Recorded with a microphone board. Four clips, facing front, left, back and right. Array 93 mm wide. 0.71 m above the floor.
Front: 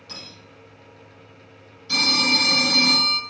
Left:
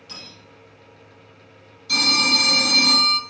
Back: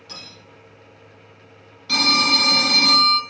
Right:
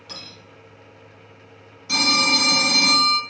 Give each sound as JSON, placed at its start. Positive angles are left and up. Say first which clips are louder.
{"t": 0.1, "sound": "cutlery clinking", "louder": "right 2 dB, even", "azimuth_deg": -95, "distance_m": 1.0}
{"t": 1.9, "sound": "a phone ringing", "louder": "right 1 dB, back 3 dB", "azimuth_deg": -155, "distance_m": 0.7}